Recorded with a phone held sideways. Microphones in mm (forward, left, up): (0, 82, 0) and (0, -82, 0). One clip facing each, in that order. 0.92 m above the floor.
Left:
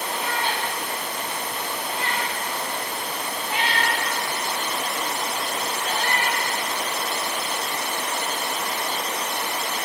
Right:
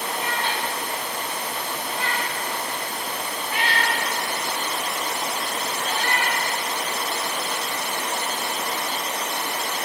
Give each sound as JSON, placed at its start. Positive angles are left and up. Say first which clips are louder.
{"t": 0.1, "sound": "a cat meowing", "louder": "left 1 dB", "side_deg": 10, "distance_m": 1.4}